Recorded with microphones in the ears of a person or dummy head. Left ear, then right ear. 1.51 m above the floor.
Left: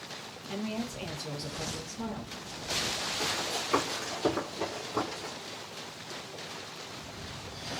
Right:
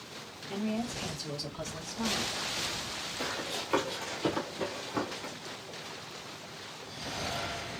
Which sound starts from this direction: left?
A woman speaking, at 0.5 s.